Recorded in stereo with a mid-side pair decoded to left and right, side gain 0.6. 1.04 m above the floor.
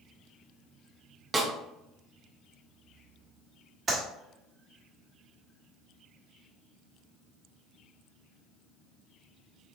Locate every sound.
1.3 s a snare drum: 25° right, 1.0 m
3.9 s a clap: 35° right, 1.7 m